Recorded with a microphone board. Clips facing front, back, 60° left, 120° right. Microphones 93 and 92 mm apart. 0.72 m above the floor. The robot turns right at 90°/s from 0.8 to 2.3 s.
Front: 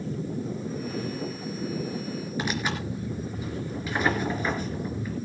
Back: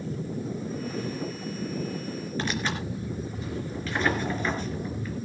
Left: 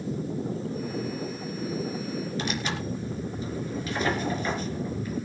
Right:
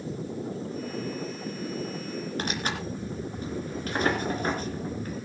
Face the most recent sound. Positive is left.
turn(degrees=-80)